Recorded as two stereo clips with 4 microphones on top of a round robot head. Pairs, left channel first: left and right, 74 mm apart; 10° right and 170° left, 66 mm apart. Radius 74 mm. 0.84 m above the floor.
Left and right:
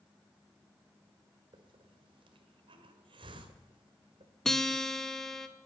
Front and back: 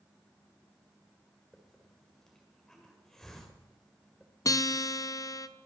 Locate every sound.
1.5 s a hiss: 95° right, 1.8 m
4.5 s a guitar: 5° left, 0.9 m